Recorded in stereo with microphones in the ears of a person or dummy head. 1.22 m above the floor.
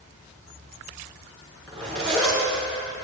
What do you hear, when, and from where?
1.7 s a zipper: 10° left (ahead or behind), 5.5 m